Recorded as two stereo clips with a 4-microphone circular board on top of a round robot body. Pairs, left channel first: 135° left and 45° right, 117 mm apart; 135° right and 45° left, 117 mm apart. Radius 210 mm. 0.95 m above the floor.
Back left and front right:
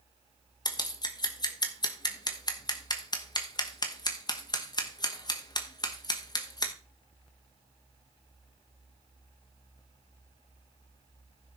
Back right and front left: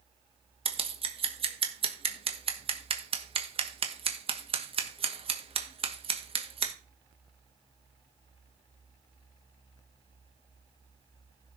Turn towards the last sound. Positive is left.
turn(degrees=80)